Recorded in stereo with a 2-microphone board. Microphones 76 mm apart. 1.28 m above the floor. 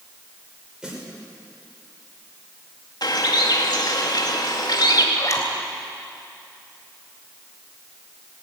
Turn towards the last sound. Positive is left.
turn(degrees=45)  # may be behind; listen again after turning